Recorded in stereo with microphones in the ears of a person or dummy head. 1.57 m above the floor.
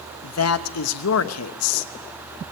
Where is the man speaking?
85° left, 1.0 m.